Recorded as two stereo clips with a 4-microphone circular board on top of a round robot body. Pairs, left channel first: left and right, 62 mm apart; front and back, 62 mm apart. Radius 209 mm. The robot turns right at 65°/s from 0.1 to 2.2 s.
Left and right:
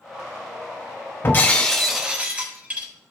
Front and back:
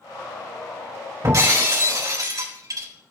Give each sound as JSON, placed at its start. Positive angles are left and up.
{"t": 1.2, "sound": "breaking glass", "azimuth_deg": 140, "distance_m": 3.0}